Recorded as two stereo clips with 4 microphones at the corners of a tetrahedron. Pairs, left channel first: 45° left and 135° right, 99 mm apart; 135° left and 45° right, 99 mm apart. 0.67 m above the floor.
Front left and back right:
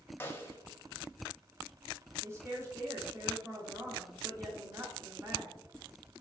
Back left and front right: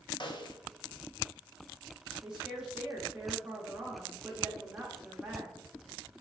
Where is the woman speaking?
115° right, 0.8 m.